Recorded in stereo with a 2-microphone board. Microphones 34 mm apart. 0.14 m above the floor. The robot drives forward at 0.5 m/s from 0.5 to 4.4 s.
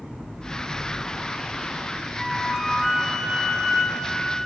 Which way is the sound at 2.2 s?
5° right (ahead or behind).